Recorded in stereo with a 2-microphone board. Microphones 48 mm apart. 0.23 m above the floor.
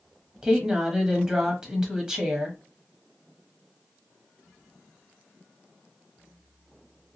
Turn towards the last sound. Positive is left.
turn(degrees=-10)  # may be behind; listen again after turning